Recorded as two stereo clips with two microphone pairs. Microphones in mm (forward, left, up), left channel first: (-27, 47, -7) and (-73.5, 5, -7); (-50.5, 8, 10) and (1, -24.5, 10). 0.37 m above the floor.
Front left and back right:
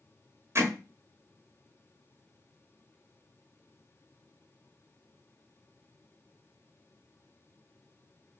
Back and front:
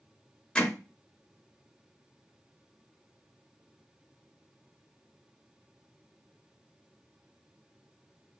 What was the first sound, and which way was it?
Hammering, 140° right.